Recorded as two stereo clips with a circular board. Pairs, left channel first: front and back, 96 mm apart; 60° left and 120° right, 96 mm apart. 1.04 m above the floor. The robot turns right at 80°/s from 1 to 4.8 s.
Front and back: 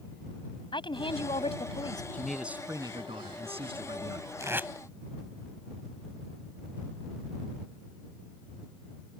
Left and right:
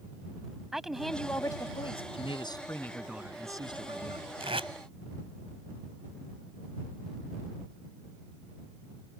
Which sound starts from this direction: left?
A man speaking, at 2.1 s.